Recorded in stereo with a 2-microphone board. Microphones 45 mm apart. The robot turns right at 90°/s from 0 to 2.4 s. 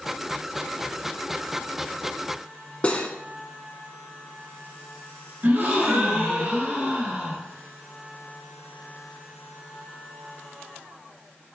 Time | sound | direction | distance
2.8 | cutlery clinking | 30° left (ahead or behind) | 0.8 m
5.4 | a gasp | 55° right (ahead or behind) | 2 m